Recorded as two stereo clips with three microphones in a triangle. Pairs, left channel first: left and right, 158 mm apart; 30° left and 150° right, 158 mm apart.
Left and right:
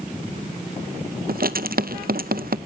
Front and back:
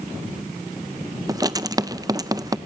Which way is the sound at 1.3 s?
85° right.